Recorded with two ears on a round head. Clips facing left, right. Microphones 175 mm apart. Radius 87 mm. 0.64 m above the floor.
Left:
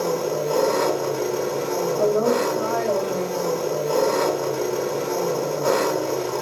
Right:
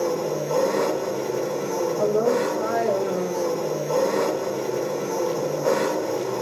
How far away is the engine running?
About 1.4 m.